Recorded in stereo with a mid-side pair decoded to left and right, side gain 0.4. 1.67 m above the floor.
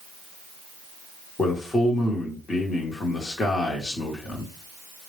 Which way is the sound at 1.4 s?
45° left.